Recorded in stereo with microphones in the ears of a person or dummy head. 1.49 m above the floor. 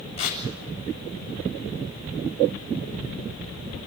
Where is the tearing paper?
30° left (ahead or behind), 4 m.